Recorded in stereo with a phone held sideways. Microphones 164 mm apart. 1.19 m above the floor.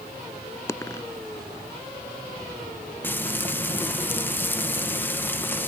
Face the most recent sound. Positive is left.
turn(degrees=10)  # may be behind; listen again after turning